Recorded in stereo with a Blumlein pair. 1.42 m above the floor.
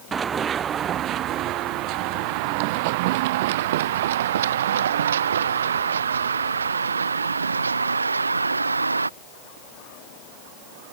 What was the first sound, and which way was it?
Running footsteps, 20° right.